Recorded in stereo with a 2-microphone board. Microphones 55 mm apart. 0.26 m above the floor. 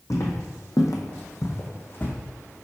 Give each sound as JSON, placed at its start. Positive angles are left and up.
{"t": 0.1, "sound": "footsteps", "side_deg": 60, "distance_m": 0.8}